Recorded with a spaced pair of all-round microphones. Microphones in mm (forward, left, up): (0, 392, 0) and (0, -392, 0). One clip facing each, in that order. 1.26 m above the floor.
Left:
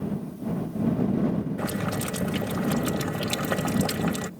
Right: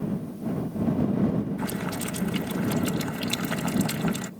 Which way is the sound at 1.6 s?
80° left.